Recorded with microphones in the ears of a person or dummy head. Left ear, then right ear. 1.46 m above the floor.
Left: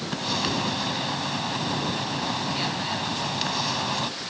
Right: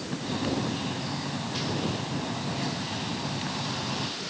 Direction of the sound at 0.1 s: 45° left (ahead or behind).